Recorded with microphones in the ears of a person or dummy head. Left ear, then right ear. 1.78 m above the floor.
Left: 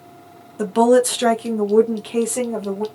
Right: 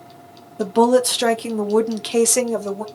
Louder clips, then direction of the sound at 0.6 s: Left 1 dB; 10° left (ahead or behind).